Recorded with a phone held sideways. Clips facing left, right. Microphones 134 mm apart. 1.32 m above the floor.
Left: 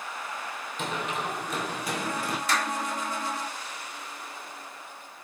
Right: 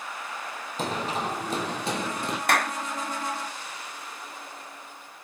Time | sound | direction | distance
0.8 | running footsteps | 35° right (ahead or behind) | 2 m
2.5 | a clap | 60° right (ahead or behind) | 0.7 m